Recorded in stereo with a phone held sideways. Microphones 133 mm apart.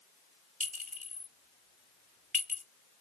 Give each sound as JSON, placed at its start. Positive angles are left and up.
{"t": 0.6, "sound": "a clink", "side_deg": -75, "distance_m": 1.5}